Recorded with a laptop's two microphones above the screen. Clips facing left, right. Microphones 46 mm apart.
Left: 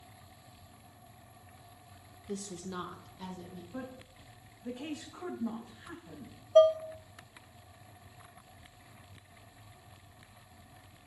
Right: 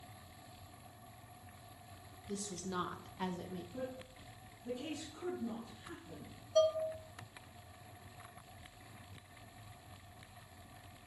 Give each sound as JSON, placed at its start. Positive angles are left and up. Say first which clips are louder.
{"t": 2.3, "sound": "a woman speaking", "louder": "left 2 dB", "side_deg": 45, "distance_m": 0.9}
{"t": 3.7, "sound": "a woman speaking", "louder": "left 3 dB", "side_deg": 55, "distance_m": 5.5}
{"t": 6.5, "sound": "dishes clattering", "louder": "left 9 dB", "side_deg": 40, "distance_m": 0.6}